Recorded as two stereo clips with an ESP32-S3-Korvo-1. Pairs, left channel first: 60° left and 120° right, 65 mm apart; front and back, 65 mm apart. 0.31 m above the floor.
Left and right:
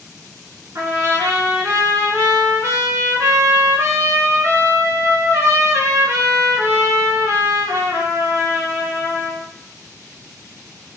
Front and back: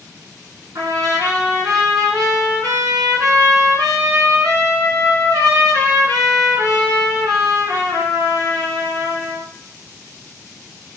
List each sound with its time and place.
0.8 s a trumpet: 160° right, 1.1 m